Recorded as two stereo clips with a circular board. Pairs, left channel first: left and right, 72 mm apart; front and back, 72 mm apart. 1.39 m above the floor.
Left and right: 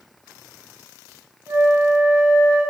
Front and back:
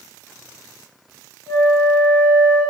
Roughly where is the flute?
Ahead right.